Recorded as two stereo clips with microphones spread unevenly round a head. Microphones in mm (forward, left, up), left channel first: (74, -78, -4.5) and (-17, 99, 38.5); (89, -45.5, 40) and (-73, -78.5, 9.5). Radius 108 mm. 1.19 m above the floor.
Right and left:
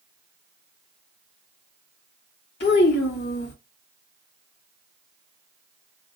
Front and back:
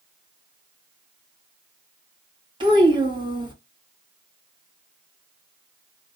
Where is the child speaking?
105° right, 1.6 m.